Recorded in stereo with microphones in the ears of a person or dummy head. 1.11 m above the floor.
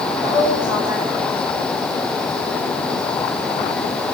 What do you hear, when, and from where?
0.2 s a woman speaking: 5° right (ahead or behind), 2.5 m